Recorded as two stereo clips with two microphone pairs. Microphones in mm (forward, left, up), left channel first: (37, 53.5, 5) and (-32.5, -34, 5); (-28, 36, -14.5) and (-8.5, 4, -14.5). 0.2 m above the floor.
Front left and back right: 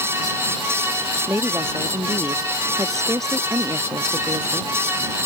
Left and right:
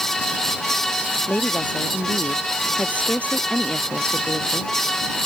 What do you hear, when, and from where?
1.3 s a woman speaking: 160° left; by 4.7 s straight behind